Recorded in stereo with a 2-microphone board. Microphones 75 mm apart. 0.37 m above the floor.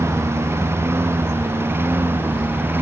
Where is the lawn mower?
35° right (ahead or behind); by 2.8 s 25° right (ahead or behind).